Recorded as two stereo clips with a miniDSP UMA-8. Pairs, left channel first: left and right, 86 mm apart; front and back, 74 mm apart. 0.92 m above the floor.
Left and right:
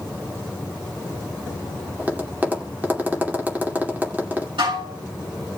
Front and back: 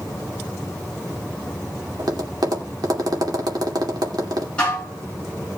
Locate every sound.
2.0 s tapping: 160° right, 2 m
4.6 s dishes clattering: 75° right, 6 m